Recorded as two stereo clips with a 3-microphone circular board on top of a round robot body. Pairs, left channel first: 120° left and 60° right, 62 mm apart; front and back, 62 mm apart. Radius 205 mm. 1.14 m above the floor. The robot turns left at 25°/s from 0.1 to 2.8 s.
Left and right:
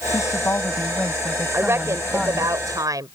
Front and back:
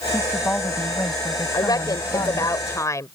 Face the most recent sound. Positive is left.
turn(degrees=-35)